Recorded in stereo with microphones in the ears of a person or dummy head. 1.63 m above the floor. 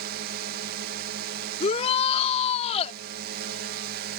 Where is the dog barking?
I don't hear a dog barking.